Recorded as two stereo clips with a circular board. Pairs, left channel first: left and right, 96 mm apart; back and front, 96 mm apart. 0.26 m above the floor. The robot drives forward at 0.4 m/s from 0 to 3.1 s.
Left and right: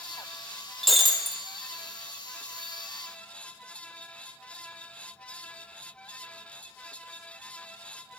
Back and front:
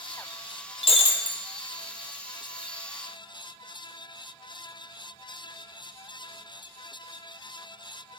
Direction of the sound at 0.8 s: Straight behind.